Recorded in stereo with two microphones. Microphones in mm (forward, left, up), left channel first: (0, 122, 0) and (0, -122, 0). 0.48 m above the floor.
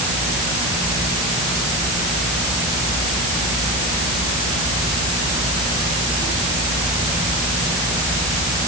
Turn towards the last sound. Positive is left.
No sound to turn to.